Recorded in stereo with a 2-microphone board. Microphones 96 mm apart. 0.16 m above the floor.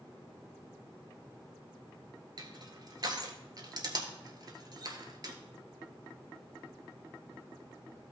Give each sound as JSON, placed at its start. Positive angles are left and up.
{"t": 2.4, "sound": "crushing", "side_deg": -50, "distance_m": 1.4}